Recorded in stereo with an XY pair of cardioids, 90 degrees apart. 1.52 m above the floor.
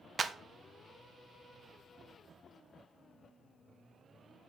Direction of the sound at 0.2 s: 45° right.